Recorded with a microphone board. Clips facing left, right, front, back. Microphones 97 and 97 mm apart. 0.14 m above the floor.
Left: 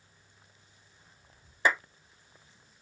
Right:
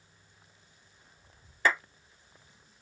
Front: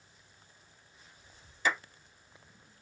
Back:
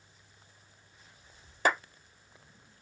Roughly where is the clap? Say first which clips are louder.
Even, back 4 dB; behind.